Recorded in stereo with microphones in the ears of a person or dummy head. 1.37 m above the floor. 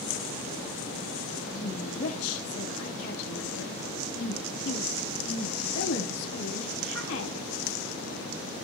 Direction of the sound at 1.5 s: 80° left.